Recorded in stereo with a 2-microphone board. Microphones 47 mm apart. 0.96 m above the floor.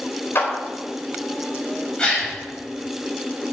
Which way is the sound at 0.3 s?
55° left (ahead or behind).